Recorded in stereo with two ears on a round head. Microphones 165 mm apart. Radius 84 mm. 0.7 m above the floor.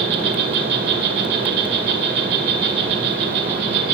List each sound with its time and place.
0.0 s an insect: 65° right (ahead or behind), 5 m